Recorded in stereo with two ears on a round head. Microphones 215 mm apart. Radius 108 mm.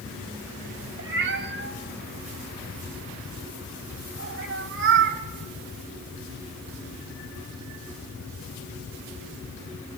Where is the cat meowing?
55° right (ahead or behind), 2 m.